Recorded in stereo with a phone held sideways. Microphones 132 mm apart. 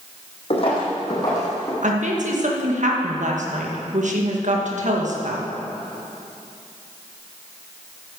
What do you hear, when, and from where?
0.5 s footsteps: 45° left (ahead or behind), 3.5 m; by 1.7 s 20° left (ahead or behind), 4 m
1.8 s a woman speaking: 65° right (ahead or behind), 1.7 m